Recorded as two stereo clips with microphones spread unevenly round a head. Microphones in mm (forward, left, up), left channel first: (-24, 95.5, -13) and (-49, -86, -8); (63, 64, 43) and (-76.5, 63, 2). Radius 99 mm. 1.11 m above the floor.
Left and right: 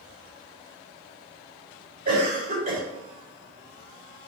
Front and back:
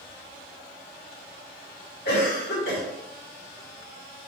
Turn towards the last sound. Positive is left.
turn(degrees=-45)